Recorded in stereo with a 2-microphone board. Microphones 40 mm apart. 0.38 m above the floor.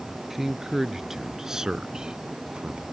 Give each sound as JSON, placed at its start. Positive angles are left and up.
{"t": 0.3, "sound": "a man speaking", "side_deg": -5}